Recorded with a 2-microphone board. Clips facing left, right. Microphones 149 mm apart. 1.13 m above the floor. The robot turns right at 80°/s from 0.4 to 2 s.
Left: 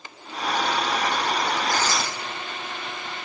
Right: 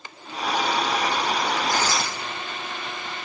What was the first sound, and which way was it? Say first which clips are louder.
Tearing paper: right 1 dB; 25° right (ahead or behind).